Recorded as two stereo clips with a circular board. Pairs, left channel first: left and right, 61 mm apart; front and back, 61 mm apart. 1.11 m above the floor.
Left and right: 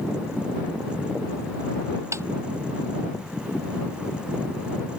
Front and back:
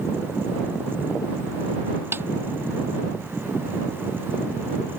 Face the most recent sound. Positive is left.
turn(degrees=-130)